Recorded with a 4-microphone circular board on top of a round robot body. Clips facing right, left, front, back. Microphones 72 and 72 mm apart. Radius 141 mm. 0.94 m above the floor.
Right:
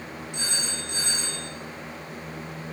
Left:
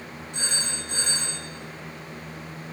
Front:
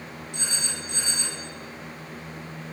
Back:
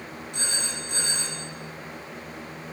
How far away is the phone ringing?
About 2.5 m.